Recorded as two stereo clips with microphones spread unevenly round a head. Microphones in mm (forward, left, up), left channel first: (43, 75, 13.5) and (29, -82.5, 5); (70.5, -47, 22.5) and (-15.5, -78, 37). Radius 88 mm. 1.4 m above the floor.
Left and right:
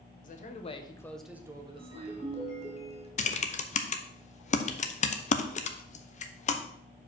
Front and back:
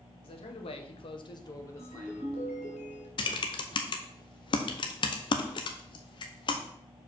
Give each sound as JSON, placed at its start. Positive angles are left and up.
{"t": 0.2, "sound": "a man speaking", "azimuth_deg": 45, "distance_m": 1.3}
{"t": 1.8, "sound": "a ringtone", "azimuth_deg": 35, "distance_m": 3.5}
{"t": 3.2, "sound": "typing on a keyboard", "azimuth_deg": 45, "distance_m": 0.8}